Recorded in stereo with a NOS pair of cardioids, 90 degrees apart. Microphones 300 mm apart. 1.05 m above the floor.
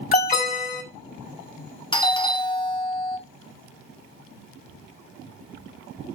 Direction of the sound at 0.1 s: 25° left.